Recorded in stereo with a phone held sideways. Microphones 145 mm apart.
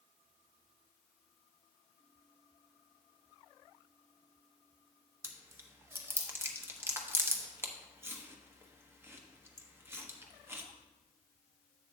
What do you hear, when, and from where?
5.2 s chewing: 15° right (ahead or behind), 0.9 m